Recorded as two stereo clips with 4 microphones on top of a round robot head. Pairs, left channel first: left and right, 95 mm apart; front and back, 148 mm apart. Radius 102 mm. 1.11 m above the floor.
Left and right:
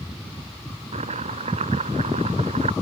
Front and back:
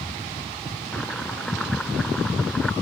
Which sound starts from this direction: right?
Chopping, at 0.9 s.